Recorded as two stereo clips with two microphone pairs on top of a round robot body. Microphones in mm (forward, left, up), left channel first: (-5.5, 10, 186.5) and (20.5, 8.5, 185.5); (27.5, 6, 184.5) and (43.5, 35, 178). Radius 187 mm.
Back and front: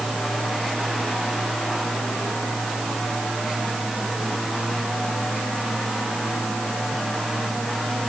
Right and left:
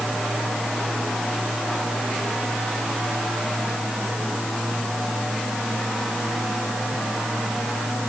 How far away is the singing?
I don't hear singing.